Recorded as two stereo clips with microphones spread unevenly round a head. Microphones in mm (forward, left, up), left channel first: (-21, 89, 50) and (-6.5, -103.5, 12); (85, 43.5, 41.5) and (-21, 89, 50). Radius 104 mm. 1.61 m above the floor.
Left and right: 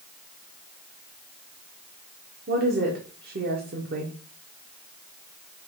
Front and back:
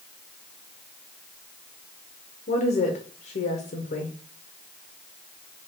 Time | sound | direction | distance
2.5 | a woman speaking | 35° right | 0.8 m